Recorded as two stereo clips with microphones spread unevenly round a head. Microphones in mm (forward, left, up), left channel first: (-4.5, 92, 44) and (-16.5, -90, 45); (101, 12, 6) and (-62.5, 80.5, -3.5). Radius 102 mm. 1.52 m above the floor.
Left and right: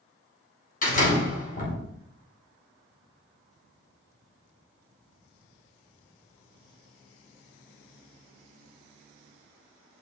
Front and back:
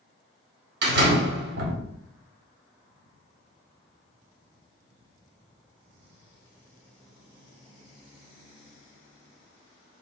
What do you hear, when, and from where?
0.8 s a door slam: 135° left, 4.5 m